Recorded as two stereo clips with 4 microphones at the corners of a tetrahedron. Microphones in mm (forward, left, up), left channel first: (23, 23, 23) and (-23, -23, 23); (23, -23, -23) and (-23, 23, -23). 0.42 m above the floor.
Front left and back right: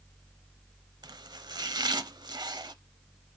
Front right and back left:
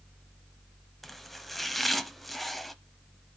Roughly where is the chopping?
Behind right.